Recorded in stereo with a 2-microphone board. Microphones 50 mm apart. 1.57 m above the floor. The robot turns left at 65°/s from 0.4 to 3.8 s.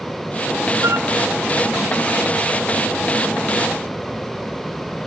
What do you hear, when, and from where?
0.8 s a flute: 75° right (ahead or behind); by 1.1 s 60° right (ahead or behind)